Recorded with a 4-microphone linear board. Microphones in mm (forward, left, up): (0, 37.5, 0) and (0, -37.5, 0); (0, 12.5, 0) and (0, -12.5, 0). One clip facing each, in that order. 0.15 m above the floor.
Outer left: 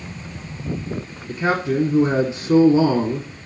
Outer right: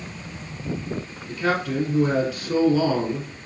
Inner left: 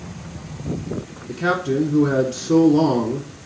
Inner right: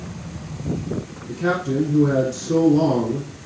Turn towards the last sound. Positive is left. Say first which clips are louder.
# outer left 3 dB, inner left 1 dB
turn(degrees=25)  # may be behind; listen again after turning